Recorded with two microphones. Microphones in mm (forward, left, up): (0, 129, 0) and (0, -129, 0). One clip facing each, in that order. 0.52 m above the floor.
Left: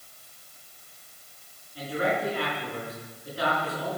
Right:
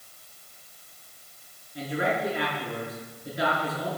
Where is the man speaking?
20° right (ahead or behind), 6 m.